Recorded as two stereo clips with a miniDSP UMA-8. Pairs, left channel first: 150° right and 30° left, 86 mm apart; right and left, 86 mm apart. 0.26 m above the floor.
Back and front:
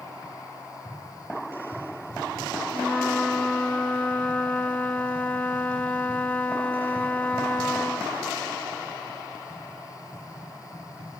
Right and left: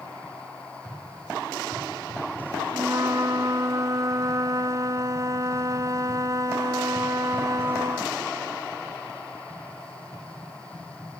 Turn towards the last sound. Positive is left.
turn(degrees=135)